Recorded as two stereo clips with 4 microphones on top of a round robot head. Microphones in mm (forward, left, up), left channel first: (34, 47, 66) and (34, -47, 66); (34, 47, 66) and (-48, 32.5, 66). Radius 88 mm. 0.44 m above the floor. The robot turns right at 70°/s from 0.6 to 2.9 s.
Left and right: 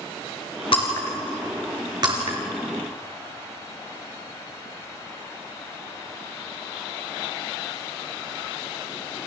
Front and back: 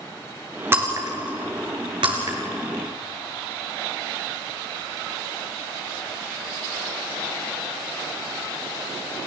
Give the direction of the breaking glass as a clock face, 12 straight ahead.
8 o'clock.